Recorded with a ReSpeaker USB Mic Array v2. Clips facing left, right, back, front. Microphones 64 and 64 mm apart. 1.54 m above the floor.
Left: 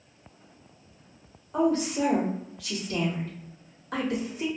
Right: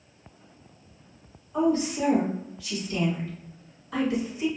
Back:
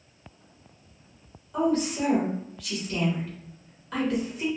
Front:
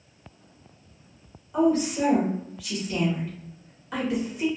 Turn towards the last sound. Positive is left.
turn(degrees=85)